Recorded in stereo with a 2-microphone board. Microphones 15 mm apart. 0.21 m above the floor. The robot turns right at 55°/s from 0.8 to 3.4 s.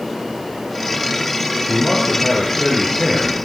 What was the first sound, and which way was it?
A man speaking, 135° left.